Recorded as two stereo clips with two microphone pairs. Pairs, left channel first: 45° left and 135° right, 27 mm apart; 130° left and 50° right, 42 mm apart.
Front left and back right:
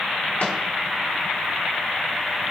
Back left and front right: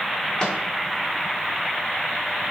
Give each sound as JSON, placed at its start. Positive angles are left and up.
{"t": 0.4, "sound": "a microwave", "azimuth_deg": 65, "distance_m": 2.5}